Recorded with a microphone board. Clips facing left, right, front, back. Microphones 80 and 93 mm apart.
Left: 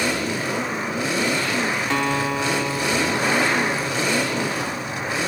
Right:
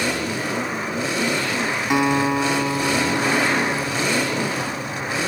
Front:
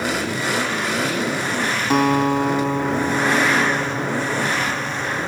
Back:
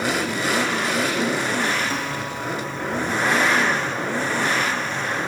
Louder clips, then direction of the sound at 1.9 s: Right 7 dB, front 11 dB; 15° right.